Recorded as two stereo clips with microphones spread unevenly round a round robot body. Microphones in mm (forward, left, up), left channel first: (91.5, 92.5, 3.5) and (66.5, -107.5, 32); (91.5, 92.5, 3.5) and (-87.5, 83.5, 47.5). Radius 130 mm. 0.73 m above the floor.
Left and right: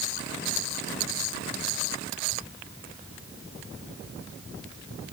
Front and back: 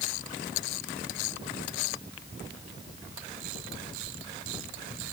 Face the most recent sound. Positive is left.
No sound to turn to.